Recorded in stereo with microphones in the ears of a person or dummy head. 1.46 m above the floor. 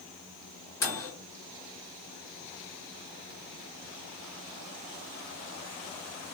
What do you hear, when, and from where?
0.8 s a microwave: 15° left (ahead or behind), 2.0 m